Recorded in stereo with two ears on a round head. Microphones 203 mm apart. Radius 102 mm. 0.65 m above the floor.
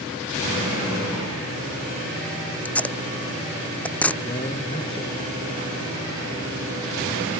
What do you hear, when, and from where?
2.6 s tape being pulled: 5° left (ahead or behind)
4.2 s a man speaking: 25° left (ahead or behind)